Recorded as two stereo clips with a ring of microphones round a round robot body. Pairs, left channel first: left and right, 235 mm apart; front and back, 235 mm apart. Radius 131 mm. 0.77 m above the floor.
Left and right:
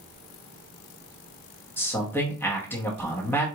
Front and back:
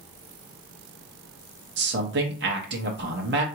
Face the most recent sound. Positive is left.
turn(degrees=170)